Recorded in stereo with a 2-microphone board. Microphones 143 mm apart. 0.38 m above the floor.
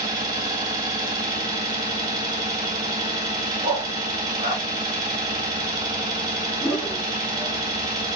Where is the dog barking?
50° right (ahead or behind), 1.4 m.